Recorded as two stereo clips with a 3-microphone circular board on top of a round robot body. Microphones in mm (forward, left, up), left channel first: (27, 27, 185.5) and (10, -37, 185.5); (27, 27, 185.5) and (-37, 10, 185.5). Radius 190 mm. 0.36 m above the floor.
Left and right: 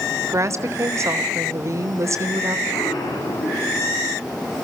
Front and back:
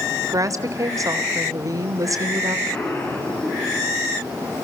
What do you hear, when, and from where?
0.2 s a woman speaking: 140° right, 2 m
2.7 s an explosion: 70° left, 4.5 m